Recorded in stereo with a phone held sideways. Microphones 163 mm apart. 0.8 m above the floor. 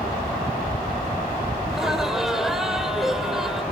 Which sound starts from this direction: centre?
Laughter, at 1.7 s.